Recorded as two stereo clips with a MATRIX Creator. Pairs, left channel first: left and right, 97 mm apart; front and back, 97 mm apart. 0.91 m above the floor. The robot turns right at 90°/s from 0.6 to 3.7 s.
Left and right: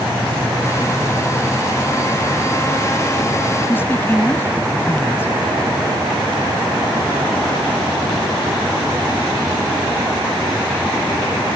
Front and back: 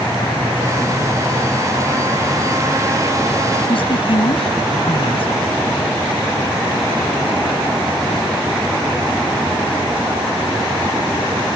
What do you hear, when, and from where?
3.7 s a woman speaking: 20° left; by 5.3 s 25° left